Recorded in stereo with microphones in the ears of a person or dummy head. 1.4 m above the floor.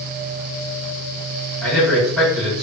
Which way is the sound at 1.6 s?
10° left (ahead or behind).